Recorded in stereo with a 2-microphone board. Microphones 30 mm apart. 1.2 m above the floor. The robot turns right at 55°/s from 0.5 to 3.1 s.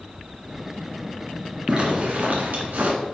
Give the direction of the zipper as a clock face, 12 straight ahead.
5 o'clock.